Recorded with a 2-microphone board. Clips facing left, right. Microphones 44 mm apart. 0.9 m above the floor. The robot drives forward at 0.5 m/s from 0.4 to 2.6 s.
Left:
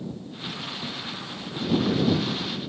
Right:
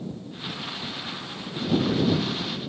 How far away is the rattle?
I don't hear a rattle.